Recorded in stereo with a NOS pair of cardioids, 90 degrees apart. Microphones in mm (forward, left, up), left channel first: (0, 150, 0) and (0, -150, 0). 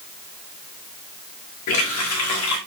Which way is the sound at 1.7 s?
70° left.